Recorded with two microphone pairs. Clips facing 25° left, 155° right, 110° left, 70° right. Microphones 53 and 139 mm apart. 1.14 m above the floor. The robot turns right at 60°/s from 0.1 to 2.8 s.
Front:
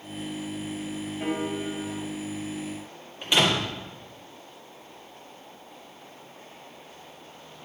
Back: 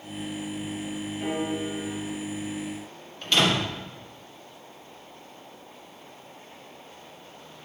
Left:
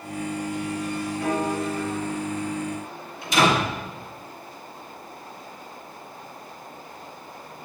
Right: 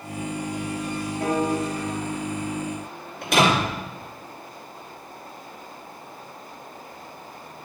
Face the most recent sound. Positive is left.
turn(degrees=-50)